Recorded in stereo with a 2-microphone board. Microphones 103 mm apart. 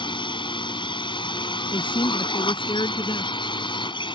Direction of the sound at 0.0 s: 50° left (ahead or behind).